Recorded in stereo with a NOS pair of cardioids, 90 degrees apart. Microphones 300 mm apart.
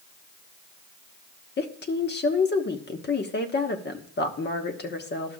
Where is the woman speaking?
35° left, 1.3 m.